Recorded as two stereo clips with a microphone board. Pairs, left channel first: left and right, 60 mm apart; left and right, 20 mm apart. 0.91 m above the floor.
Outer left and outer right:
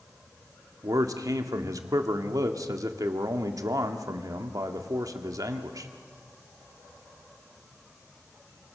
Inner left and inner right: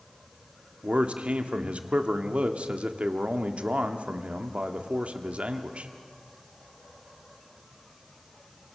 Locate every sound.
0.8 s a man speaking: 75° right (ahead or behind), 1.7 m